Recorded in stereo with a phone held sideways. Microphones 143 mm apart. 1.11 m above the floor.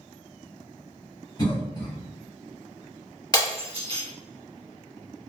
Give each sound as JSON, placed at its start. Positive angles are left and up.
{"t": 1.4, "sound": "a cough", "side_deg": 30, "distance_m": 1.0}
{"t": 3.3, "sound": "breaking glass", "side_deg": 30, "distance_m": 1.4}